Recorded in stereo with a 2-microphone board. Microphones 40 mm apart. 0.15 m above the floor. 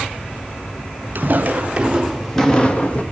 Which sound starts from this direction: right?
Footsteps, at 1.1 s.